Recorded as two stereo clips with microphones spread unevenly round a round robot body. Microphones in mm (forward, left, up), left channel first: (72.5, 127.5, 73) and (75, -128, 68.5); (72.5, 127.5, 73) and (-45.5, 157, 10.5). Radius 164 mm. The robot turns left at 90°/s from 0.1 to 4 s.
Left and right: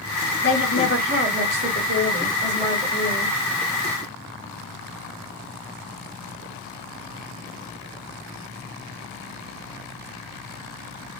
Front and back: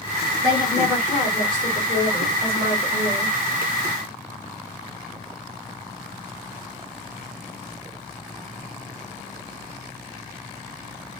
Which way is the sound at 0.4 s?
60° left.